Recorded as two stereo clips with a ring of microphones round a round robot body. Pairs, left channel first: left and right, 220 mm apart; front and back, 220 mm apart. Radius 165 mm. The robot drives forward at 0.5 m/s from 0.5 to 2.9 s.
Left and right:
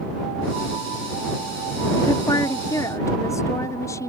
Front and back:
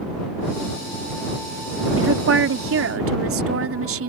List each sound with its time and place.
2.0 s a woman speaking: 165° left; by 4.1 s 170° left